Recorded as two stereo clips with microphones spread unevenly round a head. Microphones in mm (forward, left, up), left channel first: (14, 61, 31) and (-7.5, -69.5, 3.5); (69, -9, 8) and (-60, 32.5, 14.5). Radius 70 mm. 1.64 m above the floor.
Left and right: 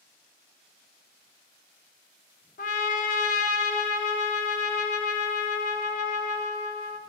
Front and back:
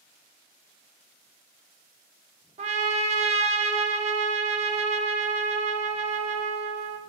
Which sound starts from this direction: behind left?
A trumpet, at 2.6 s.